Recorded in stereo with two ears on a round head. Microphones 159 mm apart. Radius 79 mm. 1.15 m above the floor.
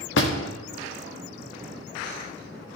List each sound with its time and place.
0.2 s a door slam: 75° left (ahead or behind), 1.4 m